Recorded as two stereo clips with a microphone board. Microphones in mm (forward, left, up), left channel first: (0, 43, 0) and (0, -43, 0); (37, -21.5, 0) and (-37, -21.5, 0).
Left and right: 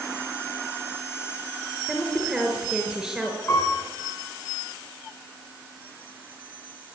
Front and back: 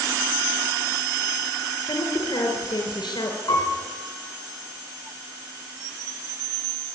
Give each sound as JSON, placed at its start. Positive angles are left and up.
{"t": 1.9, "sound": "a woman speaking", "azimuth_deg": -5, "distance_m": 4.5}
{"t": 3.5, "sound": "a piano", "azimuth_deg": 35, "distance_m": 9.5}